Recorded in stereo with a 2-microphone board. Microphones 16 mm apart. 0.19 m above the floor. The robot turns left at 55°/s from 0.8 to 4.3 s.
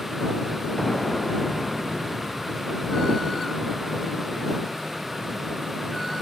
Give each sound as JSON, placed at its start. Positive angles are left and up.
{"t": 0.8, "sound": "an explosion", "azimuth_deg": 35}